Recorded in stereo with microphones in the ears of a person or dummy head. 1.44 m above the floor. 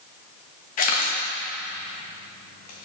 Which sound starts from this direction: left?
A camera shutter, at 0.8 s.